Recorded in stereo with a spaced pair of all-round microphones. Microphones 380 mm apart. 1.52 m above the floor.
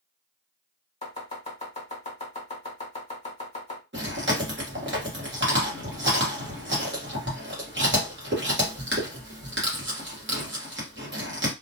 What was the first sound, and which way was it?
Chopping, 20° left (ahead or behind).